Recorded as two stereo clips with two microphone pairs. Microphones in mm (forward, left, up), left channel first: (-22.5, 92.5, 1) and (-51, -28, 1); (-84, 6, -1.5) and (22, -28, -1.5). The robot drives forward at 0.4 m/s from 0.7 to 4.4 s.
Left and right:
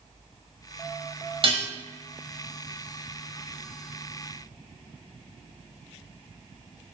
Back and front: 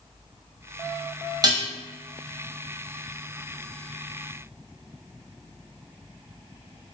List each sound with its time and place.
1.4 s dishes clattering: 65° right, 0.9 m; by 1.7 s 75° right, 0.9 m